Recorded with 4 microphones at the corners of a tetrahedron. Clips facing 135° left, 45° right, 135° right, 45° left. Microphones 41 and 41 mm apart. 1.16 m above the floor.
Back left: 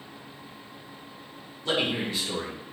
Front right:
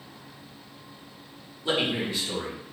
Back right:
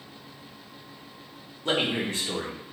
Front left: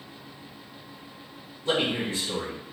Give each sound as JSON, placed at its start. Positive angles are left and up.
{"t": 1.6, "sound": "a man speaking", "azimuth_deg": -120, "distance_m": 1.2}